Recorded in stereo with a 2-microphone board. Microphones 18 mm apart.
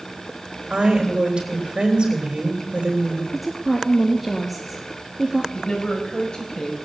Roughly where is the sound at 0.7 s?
Right.